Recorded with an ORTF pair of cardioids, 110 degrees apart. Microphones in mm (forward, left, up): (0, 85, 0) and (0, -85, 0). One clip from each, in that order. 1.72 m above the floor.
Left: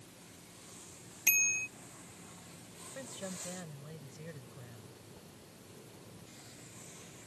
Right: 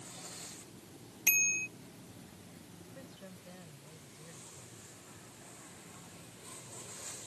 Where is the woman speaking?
50° left.